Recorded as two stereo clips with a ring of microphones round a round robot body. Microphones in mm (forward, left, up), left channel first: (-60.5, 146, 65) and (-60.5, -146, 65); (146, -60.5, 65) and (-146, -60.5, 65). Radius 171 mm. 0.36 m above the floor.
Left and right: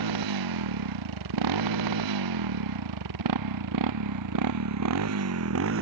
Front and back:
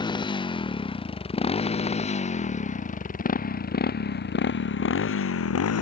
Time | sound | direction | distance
0.0 | a motorcycle | 75° right | ?